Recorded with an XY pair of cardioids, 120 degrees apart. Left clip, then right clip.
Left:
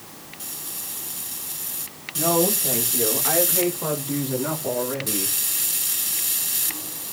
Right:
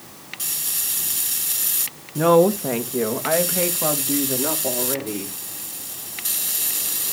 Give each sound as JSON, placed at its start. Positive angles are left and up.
{"t": 2.1, "sound": "a woman speaking", "azimuth_deg": -65, "distance_m": 1.7}